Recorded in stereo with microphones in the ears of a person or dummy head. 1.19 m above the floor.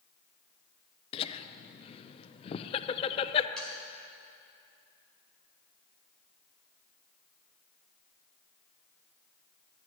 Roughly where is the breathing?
No breathing in this recording.